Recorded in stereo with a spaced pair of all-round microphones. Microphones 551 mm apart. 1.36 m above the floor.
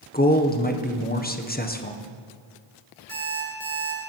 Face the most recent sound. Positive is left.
turn(degrees=-20)  # may be behind; listen again after turning